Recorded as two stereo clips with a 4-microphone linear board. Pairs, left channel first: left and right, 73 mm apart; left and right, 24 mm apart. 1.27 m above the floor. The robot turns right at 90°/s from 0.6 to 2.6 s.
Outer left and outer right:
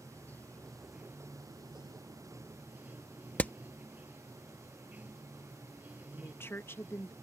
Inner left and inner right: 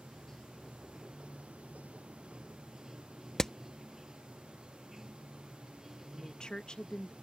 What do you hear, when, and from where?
0.0 s running water: 160° left; by 7.2 s 20° right
3.4 s hammering: 20° left (ahead or behind)
6.1 s a woman speaking: 30° left (ahead or behind)